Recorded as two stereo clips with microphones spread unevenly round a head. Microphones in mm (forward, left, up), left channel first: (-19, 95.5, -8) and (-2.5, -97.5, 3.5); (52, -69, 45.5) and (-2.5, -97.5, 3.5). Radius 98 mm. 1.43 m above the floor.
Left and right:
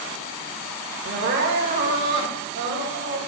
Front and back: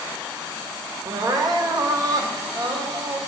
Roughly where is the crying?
Right.